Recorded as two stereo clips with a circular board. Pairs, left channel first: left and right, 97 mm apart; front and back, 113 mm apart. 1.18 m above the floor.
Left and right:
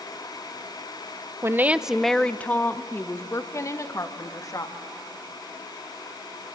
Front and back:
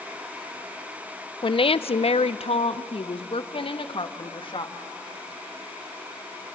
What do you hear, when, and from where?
1.4 s a woman speaking: 30° right, 0.6 m; by 4.8 s 40° left, 2 m